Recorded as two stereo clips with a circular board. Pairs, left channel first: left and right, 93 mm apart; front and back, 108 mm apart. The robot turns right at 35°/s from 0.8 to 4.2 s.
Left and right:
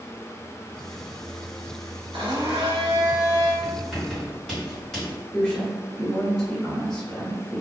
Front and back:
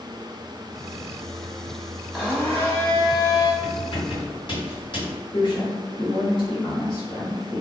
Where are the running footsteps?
No running footsteps in this recording.